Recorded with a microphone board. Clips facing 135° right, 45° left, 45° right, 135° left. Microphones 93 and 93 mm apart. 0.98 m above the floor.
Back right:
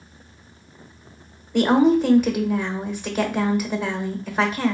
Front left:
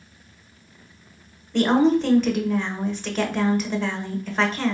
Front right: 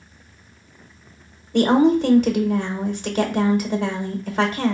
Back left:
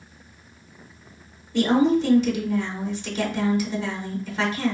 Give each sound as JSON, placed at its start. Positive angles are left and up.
{"t": 1.5, "sound": "a woman speaking", "azimuth_deg": -55, "distance_m": 1.0}